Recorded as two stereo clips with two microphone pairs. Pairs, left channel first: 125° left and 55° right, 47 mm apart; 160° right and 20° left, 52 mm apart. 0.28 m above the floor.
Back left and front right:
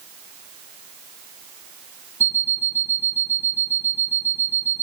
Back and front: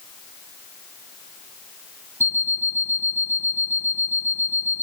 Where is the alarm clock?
15° right, 1.2 m.